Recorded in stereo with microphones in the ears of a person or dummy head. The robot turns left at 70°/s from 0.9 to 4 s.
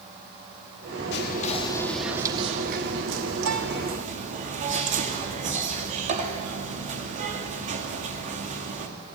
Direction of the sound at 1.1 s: 65° left.